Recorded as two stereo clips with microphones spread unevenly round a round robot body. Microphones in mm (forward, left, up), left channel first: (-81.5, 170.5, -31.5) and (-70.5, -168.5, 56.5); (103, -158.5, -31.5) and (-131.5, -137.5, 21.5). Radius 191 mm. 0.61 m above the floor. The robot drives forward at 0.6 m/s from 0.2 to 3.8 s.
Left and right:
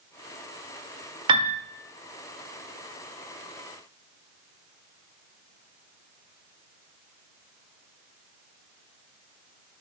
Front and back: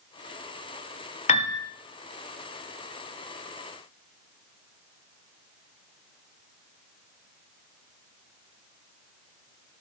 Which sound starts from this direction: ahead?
A piano, at 1.3 s.